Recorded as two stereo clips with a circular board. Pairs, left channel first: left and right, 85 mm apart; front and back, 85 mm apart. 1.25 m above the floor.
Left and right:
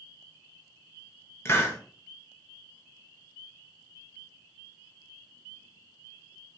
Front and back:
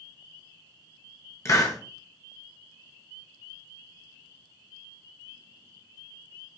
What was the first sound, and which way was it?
A hiss, 40° left.